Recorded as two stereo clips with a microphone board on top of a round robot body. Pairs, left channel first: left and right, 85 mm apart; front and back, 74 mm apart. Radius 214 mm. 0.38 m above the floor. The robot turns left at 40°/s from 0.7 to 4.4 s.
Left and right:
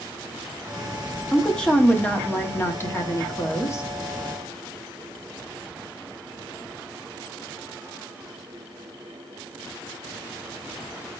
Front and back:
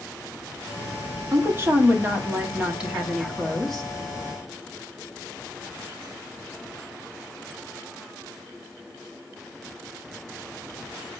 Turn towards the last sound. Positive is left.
turn(degrees=50)